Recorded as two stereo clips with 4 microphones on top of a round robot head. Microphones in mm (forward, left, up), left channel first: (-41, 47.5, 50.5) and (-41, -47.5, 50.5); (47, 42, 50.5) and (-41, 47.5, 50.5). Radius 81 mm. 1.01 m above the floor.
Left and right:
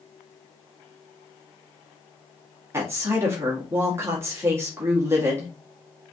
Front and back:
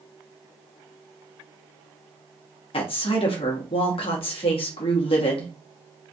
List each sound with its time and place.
2.7 s a woman speaking: 25° right, 1.7 m